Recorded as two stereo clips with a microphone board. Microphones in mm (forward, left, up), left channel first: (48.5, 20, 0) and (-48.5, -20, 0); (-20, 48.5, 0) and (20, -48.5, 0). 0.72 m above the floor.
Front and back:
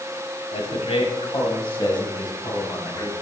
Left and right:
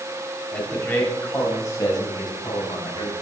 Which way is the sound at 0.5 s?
35° left.